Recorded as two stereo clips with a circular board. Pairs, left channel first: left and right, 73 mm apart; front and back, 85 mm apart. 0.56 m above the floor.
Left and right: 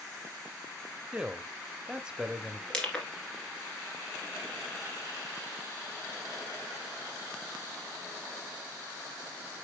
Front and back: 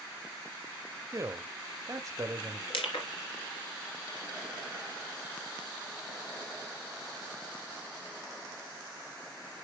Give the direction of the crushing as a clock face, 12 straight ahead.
12 o'clock.